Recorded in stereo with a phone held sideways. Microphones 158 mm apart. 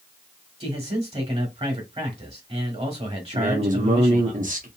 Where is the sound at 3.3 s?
55° right (ahead or behind), 0.8 m.